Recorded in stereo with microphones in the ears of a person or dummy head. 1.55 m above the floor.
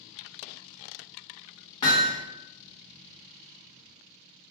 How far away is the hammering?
About 0.7 m.